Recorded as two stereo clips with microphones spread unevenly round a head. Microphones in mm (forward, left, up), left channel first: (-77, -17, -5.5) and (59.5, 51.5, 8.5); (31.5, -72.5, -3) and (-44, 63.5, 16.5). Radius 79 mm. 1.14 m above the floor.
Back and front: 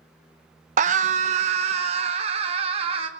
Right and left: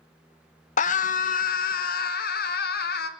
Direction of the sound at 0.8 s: 20° right.